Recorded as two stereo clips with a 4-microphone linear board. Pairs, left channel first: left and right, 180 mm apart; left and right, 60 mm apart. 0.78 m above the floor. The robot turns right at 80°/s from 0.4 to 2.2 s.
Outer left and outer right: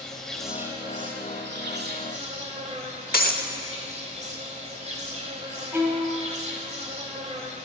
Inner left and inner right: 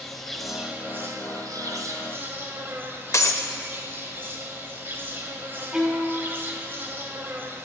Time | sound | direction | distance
0.0 | an insect | 175° left | 1.2 m
3.1 | breaking glass | 55° left (ahead or behind) | 0.8 m
5.7 | a violin | 15° right (ahead or behind) | 1.6 m